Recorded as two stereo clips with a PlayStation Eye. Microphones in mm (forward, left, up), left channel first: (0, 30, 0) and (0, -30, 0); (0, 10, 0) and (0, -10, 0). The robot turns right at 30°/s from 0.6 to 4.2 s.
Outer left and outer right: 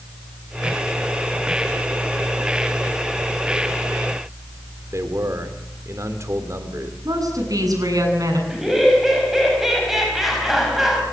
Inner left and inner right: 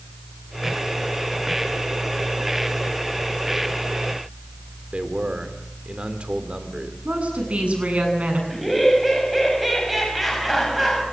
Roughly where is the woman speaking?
Right.